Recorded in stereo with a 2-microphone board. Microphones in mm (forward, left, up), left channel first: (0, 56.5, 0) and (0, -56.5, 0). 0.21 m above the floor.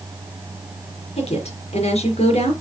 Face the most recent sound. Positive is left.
turn(degrees=65)  # may be behind; listen again after turning